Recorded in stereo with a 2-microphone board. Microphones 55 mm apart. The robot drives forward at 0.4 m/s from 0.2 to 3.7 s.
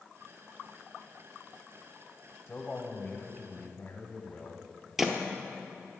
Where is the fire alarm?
No fire alarm in this recording.